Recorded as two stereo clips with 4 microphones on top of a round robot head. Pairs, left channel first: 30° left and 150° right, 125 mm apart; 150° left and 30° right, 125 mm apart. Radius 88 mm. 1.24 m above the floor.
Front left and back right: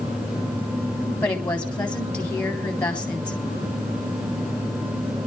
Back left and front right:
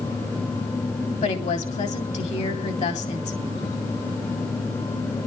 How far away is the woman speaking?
About 3.5 m.